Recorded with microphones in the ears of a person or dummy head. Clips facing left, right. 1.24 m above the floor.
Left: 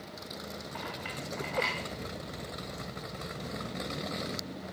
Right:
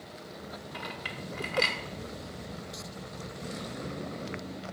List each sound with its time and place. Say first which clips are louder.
0.7 s a clink: left 1 dB; 50° right (ahead or behind), 2 m